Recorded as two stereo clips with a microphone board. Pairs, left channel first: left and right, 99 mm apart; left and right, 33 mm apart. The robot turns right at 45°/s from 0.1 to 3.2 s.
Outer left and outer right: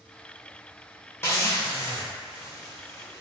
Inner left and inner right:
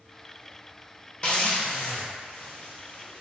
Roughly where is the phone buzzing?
No phone buzzing in this recording.